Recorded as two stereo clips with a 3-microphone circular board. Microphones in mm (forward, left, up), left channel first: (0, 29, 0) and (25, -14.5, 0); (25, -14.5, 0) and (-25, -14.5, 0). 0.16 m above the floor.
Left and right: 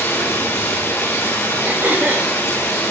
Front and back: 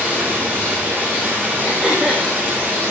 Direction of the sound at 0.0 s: 130° left.